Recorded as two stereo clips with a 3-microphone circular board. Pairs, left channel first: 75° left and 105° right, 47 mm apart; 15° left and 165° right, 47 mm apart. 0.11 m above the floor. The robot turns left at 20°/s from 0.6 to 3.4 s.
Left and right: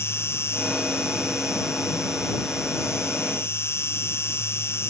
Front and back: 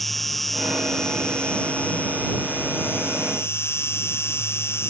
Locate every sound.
0.0 s an insect: 100° left; by 4.9 s 45° left